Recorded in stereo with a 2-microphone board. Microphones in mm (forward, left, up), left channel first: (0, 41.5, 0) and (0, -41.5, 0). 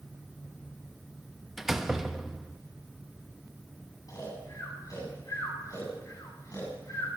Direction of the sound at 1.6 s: 5° right (ahead or behind).